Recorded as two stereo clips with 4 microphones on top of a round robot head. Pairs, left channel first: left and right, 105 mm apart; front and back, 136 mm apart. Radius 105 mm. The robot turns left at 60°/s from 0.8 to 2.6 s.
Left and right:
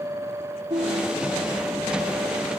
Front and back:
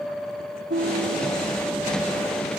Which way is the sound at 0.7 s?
145° right.